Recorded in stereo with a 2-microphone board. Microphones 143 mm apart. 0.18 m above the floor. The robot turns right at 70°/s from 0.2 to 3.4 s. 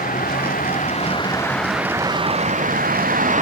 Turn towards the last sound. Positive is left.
turn(degrees=-60)